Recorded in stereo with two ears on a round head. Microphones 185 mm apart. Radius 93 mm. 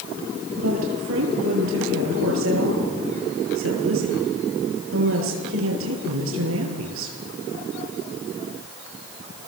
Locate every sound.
0.6 s a woman speaking: 70° right (ahead or behind), 8.5 m